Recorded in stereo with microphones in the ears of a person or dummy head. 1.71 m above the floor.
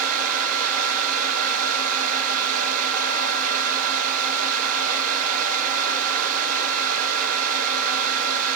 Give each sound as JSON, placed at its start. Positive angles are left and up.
{"t": 0.0, "sound": "a fan", "side_deg": -50, "distance_m": 3.5}